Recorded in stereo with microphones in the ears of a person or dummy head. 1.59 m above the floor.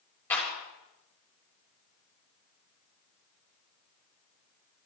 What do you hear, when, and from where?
0.3 s a clap: 15° left (ahead or behind), 6.5 m